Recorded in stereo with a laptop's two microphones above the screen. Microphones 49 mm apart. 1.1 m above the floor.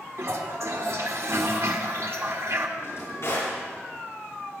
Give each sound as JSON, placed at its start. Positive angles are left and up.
{"t": 0.2, "sound": "a toilet flushing", "side_deg": -65, "distance_m": 1.6}
{"t": 2.8, "sound": "a drawer", "side_deg": 55, "distance_m": 6.5}